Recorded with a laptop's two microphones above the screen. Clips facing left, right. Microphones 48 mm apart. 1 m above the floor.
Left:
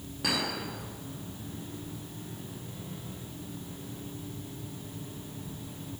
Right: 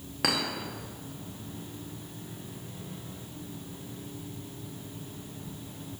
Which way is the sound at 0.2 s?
65° right (ahead or behind).